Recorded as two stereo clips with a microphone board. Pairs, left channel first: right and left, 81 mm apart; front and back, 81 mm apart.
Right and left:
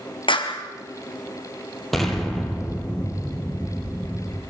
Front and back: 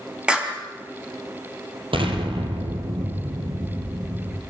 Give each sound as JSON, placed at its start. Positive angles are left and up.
{"t": 0.3, "sound": "a clap", "azimuth_deg": -105, "distance_m": 4.0}
{"t": 1.9, "sound": "an explosion", "azimuth_deg": 180, "distance_m": 4.0}